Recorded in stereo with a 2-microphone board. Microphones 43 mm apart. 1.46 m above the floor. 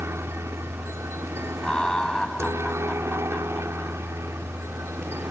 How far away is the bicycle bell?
I don't hear a bicycle bell.